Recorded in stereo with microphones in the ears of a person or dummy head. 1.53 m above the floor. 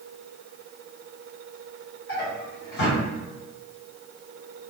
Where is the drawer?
60° left (ahead or behind), 1.2 m.